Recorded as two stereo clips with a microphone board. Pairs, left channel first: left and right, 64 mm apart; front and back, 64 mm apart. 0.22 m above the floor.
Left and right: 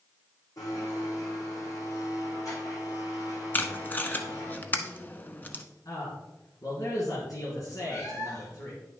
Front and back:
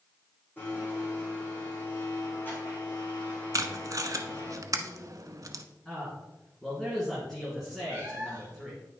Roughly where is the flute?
I don't hear a flute.